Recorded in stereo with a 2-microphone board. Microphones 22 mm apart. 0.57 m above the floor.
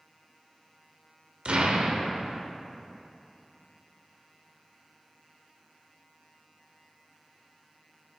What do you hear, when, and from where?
1.4 s an explosion: 70° right (ahead or behind), 0.8 m